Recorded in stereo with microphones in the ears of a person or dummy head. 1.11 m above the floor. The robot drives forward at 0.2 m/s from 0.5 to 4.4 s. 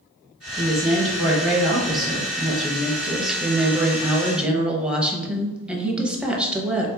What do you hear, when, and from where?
0.6 s a woman speaking: 5° right (ahead or behind), 1.4 m